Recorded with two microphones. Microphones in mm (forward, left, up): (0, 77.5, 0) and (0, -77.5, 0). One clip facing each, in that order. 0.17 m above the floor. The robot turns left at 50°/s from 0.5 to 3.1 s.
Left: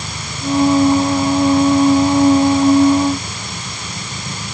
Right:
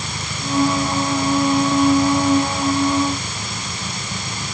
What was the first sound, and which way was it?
Only background noise.